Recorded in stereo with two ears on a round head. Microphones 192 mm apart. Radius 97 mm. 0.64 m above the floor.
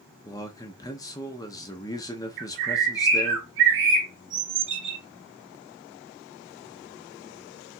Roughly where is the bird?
Right.